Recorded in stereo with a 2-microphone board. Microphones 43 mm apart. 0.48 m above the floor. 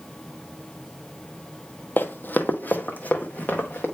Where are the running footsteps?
50° left (ahead or behind), 0.7 m; by 3.9 s 35° left (ahead or behind), 2.0 m.